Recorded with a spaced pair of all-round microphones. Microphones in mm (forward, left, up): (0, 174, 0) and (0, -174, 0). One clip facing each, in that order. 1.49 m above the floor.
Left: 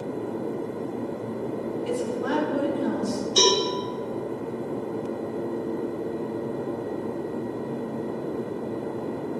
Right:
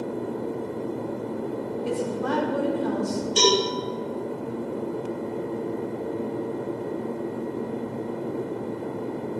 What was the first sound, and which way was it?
A woman speaking, 60° right (ahead or behind).